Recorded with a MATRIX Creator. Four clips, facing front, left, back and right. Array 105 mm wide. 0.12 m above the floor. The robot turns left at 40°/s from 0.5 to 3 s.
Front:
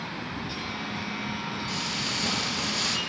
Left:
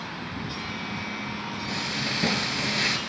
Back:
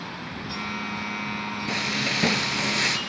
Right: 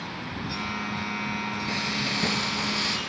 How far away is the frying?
About 0.7 m.